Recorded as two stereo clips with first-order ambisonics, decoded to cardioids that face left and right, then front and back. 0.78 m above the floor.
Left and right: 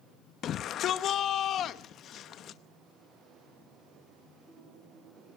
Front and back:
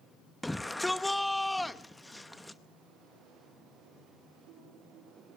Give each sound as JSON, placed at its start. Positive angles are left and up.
{"t": 0.4, "sound": "a shout", "azimuth_deg": 80, "distance_m": 0.7}